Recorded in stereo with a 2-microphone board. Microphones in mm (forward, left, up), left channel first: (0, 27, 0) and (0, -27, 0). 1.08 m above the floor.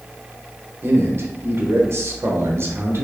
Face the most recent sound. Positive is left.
turn(degrees=-45)  # may be behind; listen again after turning